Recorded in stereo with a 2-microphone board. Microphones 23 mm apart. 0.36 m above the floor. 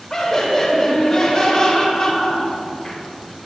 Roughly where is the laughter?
Left.